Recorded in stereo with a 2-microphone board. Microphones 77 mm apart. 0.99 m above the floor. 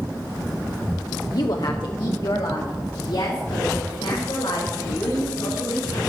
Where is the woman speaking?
50° left (ahead or behind), 0.6 m; by 6.0 s 85° left, 5.5 m.